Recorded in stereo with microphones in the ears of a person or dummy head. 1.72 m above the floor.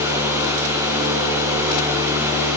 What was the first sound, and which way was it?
A fan, 5° right (ahead or behind).